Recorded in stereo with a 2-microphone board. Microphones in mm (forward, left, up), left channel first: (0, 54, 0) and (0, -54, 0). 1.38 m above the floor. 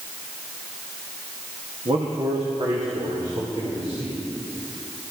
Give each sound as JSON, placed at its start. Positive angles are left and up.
{"t": 1.9, "sound": "a man speaking", "side_deg": -60, "distance_m": 1.2}